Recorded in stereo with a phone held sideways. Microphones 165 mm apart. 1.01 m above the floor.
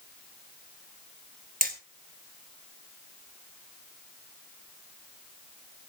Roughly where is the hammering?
Right.